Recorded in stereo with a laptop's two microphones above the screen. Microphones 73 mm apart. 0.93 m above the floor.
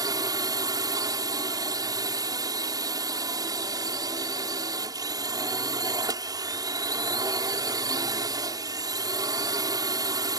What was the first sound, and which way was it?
A drone, 60° right (ahead or behind).